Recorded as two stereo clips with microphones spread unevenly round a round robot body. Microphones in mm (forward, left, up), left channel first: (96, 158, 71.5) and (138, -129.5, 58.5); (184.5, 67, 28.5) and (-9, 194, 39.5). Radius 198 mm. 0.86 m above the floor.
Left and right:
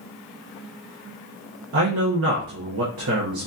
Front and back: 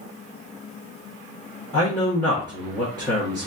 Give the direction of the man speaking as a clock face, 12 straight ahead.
4 o'clock.